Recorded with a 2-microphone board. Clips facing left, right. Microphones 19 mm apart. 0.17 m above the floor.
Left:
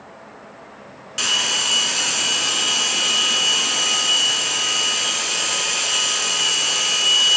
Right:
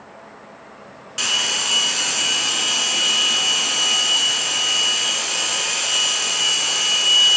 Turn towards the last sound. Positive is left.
turn(degrees=0)  # may be behind; listen again after turning